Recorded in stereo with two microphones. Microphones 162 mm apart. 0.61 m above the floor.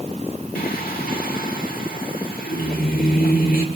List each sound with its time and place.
0.6 s singing: 65° left (ahead or behind), 1.4 m